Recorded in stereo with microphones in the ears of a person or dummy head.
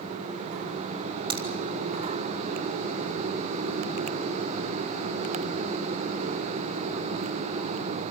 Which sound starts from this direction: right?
A crack, at 1.3 s.